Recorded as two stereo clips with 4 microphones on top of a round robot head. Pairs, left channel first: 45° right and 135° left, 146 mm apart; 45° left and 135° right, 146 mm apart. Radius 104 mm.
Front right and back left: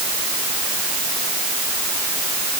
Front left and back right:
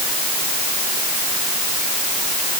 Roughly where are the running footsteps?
No running footsteps in this recording.